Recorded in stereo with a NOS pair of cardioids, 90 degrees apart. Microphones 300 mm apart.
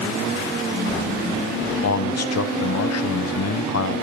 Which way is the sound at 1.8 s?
55° left.